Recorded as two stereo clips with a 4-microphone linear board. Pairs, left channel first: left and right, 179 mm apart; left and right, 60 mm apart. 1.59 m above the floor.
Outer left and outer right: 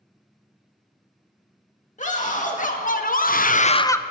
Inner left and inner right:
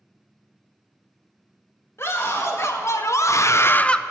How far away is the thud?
I don't hear a thud.